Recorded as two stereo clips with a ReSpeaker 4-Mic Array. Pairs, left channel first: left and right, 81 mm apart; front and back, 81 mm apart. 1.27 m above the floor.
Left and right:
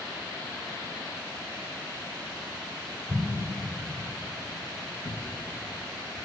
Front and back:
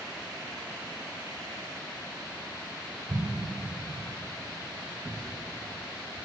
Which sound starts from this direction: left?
A cupboard door, at 5.0 s.